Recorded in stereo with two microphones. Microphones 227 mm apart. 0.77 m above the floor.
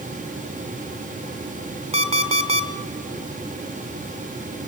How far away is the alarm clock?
About 1.6 m.